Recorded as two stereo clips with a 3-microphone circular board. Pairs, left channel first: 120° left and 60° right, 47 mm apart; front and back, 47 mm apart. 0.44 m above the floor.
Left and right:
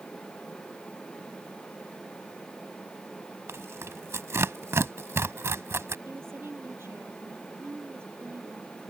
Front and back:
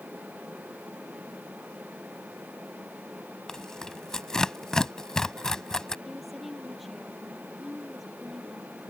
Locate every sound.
3.5 s tearing paper: 75° right
6.0 s a woman speaking: 90° right